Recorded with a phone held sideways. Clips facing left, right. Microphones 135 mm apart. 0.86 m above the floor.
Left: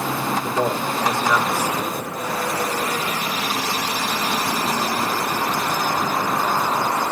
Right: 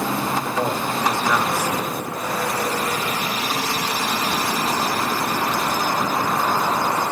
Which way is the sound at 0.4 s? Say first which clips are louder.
Left 1 dB; 15° left (ahead or behind).